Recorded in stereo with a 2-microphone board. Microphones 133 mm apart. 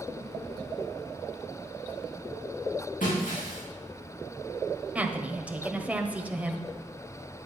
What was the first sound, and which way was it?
Breaking glass, 80° left.